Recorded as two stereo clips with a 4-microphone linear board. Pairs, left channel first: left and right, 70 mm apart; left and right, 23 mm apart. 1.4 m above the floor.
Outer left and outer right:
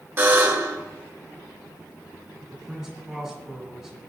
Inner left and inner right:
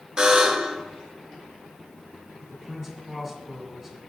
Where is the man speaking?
5° right (ahead or behind), 6.5 m.